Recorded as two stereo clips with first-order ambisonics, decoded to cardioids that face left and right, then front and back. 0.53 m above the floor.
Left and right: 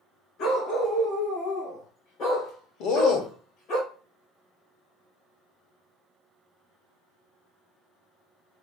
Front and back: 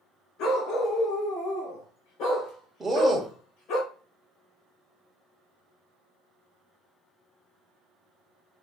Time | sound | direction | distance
0.4 | a dog barking | 40° left | 2 m
2.8 | a man speaking | 100° left | 1.7 m